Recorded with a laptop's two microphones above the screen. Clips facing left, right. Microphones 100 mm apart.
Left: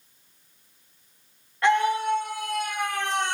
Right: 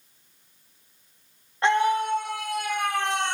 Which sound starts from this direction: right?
A scream, at 1.6 s.